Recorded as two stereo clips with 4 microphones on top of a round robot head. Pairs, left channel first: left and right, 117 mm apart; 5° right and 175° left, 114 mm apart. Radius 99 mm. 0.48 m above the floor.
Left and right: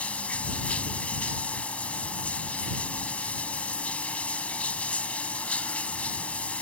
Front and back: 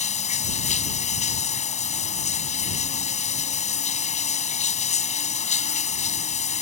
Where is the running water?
10° left.